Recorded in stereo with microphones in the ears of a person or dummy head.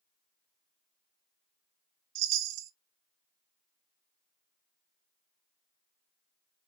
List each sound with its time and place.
2.1 s a chime: 65° right (ahead or behind), 0.9 m